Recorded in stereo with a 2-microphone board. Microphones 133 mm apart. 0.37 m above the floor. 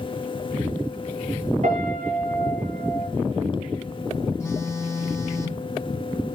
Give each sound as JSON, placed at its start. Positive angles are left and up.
{"t": 1.6, "sound": "a piano", "side_deg": -70, "distance_m": 5.0}
{"t": 4.4, "sound": "a phone buzzing", "side_deg": 20, "distance_m": 2.5}